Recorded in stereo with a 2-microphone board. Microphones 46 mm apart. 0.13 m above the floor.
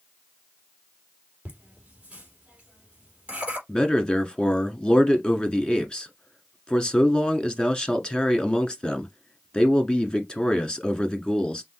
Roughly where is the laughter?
Right.